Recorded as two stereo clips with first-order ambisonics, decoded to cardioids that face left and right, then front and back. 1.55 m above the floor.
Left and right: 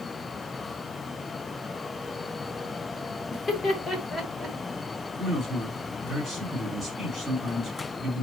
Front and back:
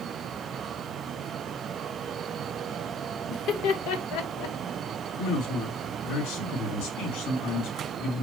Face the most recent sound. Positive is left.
turn(degrees=5)